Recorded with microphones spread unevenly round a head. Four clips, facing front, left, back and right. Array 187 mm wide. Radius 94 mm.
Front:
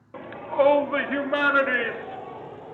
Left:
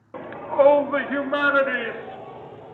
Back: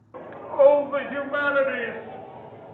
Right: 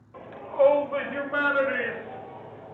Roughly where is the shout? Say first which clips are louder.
Left 4 dB, back 2 dB; left.